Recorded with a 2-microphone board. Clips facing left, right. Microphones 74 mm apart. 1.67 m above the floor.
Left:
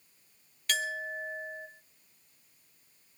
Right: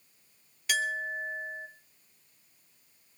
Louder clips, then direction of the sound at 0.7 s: Right 3 dB; 5° right (ahead or behind).